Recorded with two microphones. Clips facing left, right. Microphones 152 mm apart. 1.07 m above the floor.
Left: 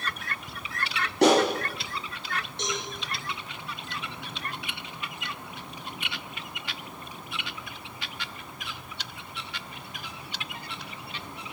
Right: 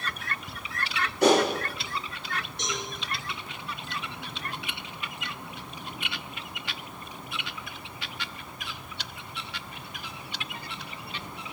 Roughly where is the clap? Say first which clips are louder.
Left 1 dB; left.